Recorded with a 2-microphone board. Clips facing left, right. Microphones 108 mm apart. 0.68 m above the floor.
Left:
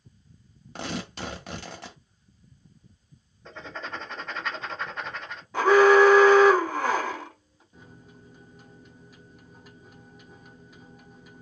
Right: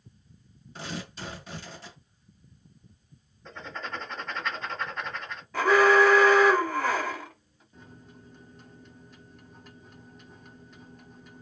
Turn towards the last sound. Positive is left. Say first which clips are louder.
# even
turn(degrees=5)  # may be behind; listen again after turning